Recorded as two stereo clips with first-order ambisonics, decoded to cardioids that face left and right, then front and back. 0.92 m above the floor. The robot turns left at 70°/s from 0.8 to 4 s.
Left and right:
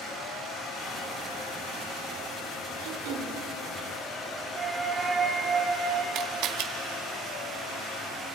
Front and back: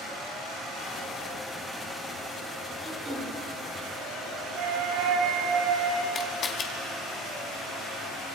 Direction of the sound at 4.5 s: 165° right.